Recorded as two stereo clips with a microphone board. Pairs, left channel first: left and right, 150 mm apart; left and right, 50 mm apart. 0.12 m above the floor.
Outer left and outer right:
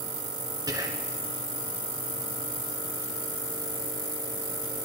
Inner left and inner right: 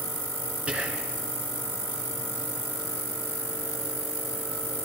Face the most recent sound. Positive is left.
turn(degrees=-25)  # may be behind; listen again after turning